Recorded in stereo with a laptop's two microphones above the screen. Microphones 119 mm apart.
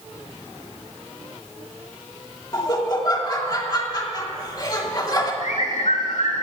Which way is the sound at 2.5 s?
30° left (ahead or behind).